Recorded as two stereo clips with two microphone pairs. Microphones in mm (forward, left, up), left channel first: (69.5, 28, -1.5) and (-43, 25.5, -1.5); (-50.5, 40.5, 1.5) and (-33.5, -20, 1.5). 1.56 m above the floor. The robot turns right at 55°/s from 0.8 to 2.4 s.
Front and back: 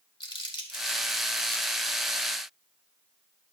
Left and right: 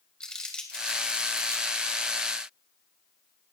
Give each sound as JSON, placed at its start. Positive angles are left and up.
{"t": 0.2, "sound": "crumpling", "azimuth_deg": 35, "distance_m": 2.5}